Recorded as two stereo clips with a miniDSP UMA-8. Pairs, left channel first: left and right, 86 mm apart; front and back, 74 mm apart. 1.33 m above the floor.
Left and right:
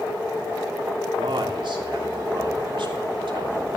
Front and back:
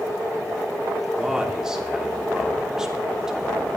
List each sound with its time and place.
1.2 s a man speaking: 100° right, 3 m